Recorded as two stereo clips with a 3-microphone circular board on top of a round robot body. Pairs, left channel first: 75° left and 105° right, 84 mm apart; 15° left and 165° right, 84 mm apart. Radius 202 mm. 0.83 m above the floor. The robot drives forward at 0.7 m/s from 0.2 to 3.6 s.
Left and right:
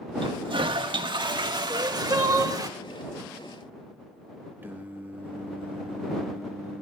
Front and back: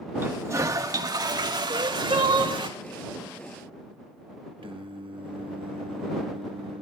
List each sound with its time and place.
0.2 s a toilet flushing: 105° right, 1.5 m; by 2.7 s 145° right, 2.5 m
1.7 s crying: 150° right, 2.5 m; by 2.6 s 155° right, 3 m
4.6 s singing: 170° right, 1.2 m